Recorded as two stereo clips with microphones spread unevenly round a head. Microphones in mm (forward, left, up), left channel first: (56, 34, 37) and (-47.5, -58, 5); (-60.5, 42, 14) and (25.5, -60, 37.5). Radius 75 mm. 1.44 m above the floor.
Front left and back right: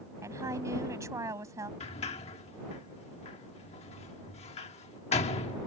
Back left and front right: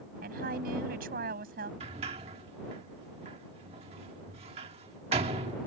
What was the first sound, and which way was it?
A woman speaking, 65° right.